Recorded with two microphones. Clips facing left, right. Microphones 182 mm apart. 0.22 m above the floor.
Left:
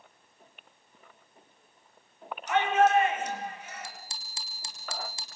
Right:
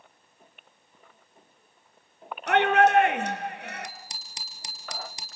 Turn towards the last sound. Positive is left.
turn(degrees=-20)  # may be behind; listen again after turning